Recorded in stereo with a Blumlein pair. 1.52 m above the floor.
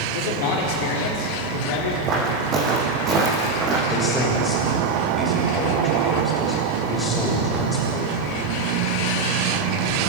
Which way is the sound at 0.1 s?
50° left.